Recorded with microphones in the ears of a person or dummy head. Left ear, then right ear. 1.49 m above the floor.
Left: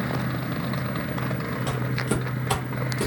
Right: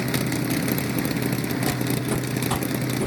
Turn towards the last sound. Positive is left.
turn(degrees=30)  # may be behind; listen again after turning